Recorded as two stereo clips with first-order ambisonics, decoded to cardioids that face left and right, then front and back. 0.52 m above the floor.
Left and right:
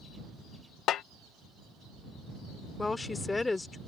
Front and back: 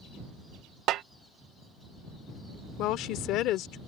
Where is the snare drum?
140° left.